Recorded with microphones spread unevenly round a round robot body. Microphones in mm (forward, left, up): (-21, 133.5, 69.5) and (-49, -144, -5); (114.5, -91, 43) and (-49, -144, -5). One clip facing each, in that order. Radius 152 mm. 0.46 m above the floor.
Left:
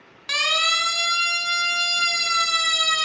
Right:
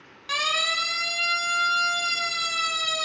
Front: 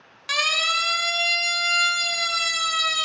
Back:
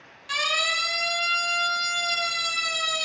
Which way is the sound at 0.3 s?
15° left.